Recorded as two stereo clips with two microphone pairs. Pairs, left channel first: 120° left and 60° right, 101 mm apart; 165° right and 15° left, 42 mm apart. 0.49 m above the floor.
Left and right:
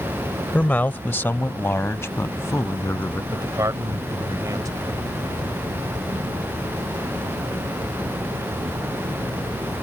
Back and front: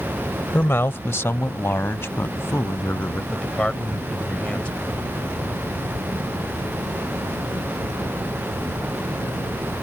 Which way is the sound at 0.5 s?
165° right.